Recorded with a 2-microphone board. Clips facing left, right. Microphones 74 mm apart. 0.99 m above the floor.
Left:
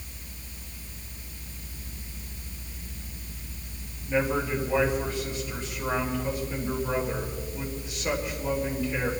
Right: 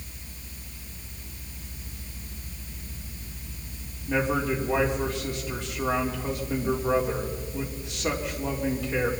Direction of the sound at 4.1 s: 75° right (ahead or behind).